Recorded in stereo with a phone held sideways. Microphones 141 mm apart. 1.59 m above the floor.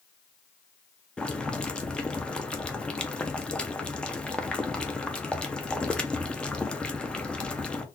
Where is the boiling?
5° left (ahead or behind), 0.6 m.